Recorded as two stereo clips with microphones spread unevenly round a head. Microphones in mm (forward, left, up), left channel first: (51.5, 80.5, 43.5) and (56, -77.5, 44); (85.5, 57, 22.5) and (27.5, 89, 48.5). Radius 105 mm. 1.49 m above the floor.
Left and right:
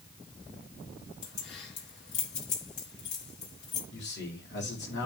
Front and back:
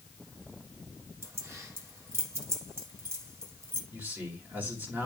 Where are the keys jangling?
105° left, 4 m.